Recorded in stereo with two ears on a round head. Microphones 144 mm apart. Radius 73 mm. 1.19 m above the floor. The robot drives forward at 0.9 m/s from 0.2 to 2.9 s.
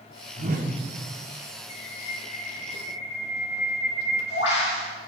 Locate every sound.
0.4 s a whoosh: 65° right (ahead or behind), 4 m; by 0.7 s 60° right (ahead or behind), 4 m
1.7 s a bird: 75° left (ahead or behind), 8.5 m; by 4.9 s 80° left, 8 m